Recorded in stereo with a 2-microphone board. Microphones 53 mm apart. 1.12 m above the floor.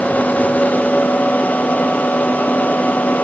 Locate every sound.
Only background noise.